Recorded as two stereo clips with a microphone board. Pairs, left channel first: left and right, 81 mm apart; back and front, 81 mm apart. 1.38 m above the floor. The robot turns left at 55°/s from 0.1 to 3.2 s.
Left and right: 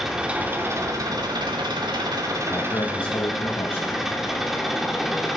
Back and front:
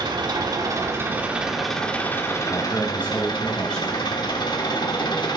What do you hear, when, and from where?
0.0 s an engine running: 5° right, 1.5 m; by 5.4 s 175° right, 1.5 m
2.5 s a man speaking: 145° left, 1.6 m; by 3.9 s 105° left, 1.6 m